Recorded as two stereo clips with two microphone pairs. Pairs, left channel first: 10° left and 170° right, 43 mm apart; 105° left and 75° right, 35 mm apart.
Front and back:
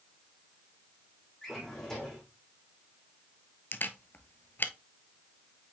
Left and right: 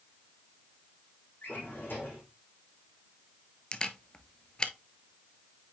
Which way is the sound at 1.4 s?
85° left.